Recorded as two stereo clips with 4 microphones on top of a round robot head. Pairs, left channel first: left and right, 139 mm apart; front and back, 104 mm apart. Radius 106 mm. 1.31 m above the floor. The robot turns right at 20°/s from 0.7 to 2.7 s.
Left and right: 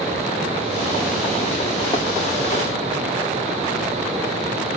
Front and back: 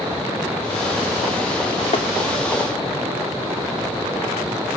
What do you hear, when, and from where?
1.9 s tapping: 25° left, 0.6 m